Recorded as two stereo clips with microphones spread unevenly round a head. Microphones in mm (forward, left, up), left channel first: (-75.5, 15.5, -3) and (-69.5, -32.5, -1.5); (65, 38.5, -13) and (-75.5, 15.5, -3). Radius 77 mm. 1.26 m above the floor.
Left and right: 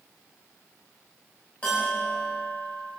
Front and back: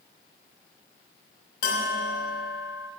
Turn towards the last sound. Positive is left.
turn(degrees=15)